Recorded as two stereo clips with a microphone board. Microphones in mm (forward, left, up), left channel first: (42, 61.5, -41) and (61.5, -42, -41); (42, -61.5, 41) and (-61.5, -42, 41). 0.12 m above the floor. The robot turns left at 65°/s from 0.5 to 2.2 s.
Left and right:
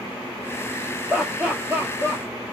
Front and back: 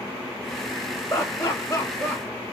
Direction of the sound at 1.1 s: 5° left.